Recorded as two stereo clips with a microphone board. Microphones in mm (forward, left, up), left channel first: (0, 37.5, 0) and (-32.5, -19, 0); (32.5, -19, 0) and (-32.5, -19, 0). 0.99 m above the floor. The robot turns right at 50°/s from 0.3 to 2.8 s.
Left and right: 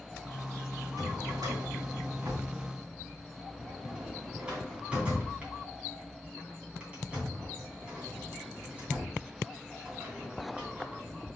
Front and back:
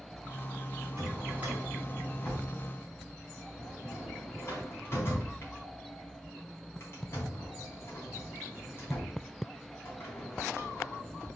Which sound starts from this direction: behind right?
A drawer, at 1.0 s.